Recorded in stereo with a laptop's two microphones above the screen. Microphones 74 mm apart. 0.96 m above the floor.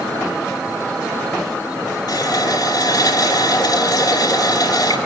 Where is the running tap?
60° left (ahead or behind), 3.5 m.